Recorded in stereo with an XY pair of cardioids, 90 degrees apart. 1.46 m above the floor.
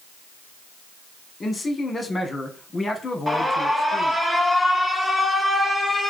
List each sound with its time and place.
1.4 s a man speaking: 35° left, 1.4 m
3.3 s an alarm: 5° left, 1.4 m